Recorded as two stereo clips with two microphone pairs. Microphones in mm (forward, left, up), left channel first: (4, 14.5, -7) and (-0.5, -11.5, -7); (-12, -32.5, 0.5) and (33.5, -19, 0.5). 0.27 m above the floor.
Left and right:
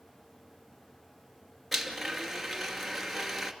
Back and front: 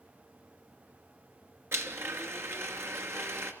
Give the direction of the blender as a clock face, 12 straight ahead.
12 o'clock.